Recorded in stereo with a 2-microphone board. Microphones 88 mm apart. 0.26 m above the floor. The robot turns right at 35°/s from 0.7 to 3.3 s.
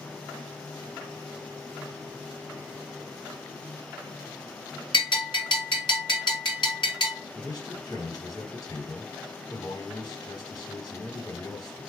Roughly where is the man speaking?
Left.